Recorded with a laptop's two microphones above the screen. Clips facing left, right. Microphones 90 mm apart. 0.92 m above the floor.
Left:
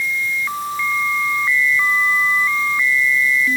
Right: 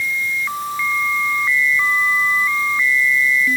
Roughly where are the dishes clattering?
I don't hear dishes clattering.